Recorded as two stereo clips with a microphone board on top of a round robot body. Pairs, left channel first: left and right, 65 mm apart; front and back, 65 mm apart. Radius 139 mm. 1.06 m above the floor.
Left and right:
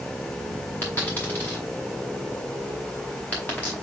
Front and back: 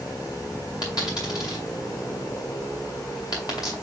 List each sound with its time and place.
0.8 s a dropped coin: 40° left, 0.6 m